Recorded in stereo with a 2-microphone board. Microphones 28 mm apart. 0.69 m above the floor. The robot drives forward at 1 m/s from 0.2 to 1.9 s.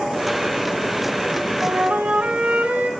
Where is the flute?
85° right, 4.5 m; by 2.9 s 80° right, 4.5 m.